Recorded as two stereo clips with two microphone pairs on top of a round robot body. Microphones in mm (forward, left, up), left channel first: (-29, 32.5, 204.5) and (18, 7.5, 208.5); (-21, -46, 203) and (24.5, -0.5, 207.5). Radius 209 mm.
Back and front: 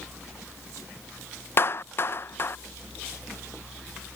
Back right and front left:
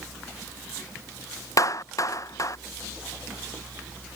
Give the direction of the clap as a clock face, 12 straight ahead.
6 o'clock.